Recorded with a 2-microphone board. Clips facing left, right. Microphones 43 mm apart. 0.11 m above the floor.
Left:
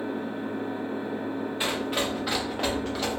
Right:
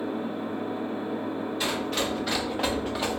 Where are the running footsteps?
25° left (ahead or behind), 1.1 m; by 3.2 s 20° right (ahead or behind), 1.0 m.